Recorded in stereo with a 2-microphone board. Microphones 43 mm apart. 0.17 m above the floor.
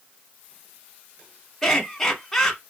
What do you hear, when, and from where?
1.6 s laughter: 5° left (ahead or behind), 1.2 m